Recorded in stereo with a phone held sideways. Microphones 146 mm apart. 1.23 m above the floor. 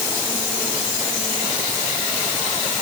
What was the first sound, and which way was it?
Only background noise.